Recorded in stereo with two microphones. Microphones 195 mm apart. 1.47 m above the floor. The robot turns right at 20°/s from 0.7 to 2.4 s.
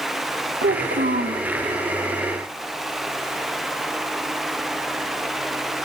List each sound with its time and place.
0.6 s a child speaking: 65° right (ahead or behind), 1.5 m; by 1.5 s 50° right (ahead or behind), 1.5 m